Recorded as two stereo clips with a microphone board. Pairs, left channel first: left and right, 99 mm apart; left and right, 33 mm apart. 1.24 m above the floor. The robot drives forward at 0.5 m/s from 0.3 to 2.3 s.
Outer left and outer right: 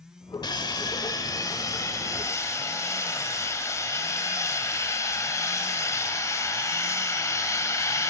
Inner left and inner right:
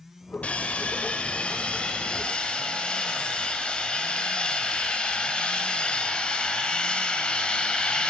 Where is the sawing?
45° left (ahead or behind), 1.3 m; by 8.1 s 30° left (ahead or behind), 1.8 m.